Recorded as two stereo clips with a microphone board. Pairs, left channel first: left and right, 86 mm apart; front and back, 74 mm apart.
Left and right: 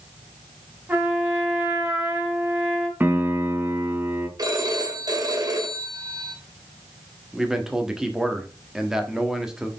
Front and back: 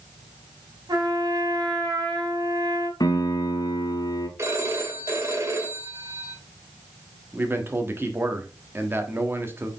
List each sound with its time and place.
0.9 s a trumpet: 160° right, 2.5 m
3.0 s a piano: 20° right, 1.1 m
4.4 s a phone ringing: 130° right, 1.9 m
7.3 s a man speaking: 165° right, 1.3 m